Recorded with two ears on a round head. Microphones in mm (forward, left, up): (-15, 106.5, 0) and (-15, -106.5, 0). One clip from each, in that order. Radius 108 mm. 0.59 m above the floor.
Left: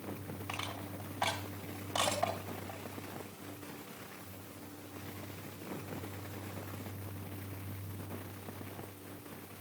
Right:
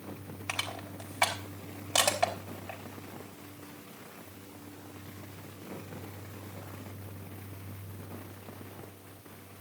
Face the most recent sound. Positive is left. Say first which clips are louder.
# right 6 dB
turn(degrees=-70)  # may be behind; listen again after turning